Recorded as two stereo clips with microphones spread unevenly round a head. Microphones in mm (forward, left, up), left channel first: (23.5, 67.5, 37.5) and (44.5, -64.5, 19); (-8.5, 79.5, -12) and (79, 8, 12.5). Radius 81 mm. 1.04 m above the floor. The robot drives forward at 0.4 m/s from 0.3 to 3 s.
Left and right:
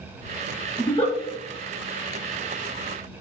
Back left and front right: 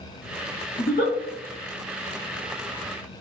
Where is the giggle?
150° left, 1.4 m.